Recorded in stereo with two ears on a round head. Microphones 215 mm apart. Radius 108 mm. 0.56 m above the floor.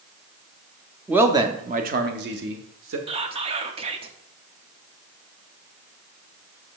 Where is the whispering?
25° right (ahead or behind), 0.7 m.